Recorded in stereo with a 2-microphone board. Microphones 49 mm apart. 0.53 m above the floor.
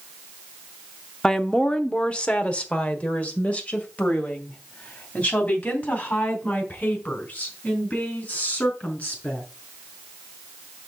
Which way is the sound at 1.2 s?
15° left (ahead or behind).